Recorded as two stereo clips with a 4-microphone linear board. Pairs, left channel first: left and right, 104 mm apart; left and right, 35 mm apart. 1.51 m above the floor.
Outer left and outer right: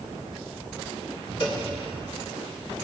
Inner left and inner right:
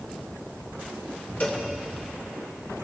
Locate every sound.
1.4 s a cowbell: 55° left (ahead or behind), 2.5 m